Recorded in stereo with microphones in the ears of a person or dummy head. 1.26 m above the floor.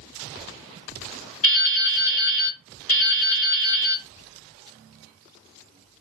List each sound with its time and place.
1.4 s dripping: 40° left (ahead or behind), 2.5 m